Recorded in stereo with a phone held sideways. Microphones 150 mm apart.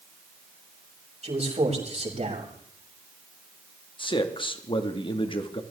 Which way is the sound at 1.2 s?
45° right (ahead or behind).